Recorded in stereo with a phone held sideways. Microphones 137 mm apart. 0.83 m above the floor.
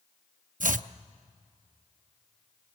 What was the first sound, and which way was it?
Chopping, 85° right.